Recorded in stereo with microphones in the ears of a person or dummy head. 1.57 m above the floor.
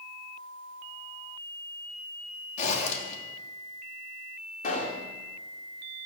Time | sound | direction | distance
2.6 | a zipper | 40° left (ahead or behind) | 3 m
4.6 | a pop | 40° left (ahead or behind) | 3 m